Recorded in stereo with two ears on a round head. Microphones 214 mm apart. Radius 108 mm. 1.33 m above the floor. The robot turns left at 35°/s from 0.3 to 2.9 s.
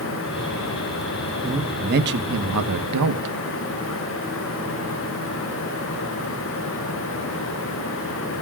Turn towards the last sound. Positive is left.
turn(degrees=-75)